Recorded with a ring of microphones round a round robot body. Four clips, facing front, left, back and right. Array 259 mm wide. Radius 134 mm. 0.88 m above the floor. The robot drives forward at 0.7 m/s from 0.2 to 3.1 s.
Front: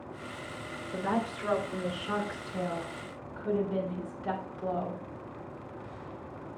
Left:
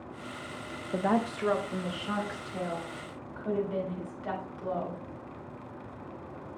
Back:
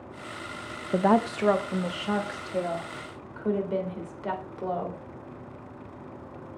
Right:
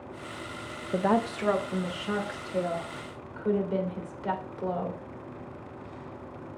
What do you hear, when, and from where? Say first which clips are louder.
0.9 s a woman speaking: right 2 dB, back 9 dB; 175° right, 0.6 m; by 5.0 s straight behind, 2.0 m